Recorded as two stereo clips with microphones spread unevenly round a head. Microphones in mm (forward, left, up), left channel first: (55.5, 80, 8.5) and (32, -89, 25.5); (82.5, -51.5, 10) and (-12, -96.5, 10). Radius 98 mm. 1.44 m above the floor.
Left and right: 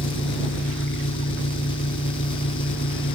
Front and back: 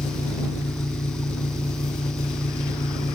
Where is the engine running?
80° left.